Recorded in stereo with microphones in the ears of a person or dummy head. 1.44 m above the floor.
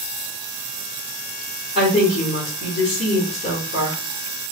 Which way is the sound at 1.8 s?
45° left (ahead or behind).